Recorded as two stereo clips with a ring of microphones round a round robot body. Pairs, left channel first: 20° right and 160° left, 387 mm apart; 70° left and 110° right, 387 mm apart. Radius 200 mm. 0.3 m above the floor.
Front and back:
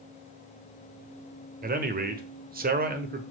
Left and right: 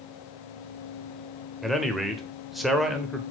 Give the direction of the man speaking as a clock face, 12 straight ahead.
7 o'clock.